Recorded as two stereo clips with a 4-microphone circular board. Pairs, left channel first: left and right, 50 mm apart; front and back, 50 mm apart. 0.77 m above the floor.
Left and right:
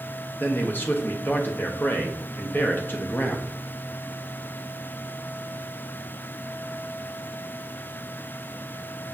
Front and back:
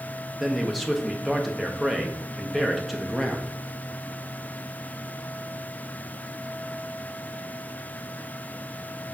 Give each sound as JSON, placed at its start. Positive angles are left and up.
{"t": 0.4, "sound": "a man speaking", "azimuth_deg": 85, "distance_m": 0.6}